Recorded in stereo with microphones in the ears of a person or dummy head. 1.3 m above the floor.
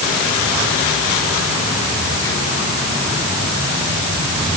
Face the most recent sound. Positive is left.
No sound to turn to.